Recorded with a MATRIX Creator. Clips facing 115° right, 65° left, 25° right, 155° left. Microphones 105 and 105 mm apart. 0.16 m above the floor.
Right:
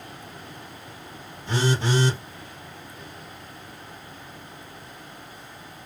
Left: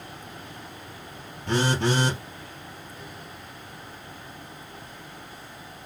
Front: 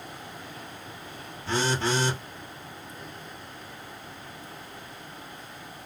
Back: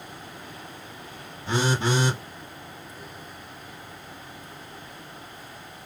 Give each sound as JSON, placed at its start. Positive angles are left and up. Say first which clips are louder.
{"t": 1.5, "sound": "a phone buzzing", "louder": "left 1 dB, back 2 dB", "azimuth_deg": 85, "distance_m": 2.5}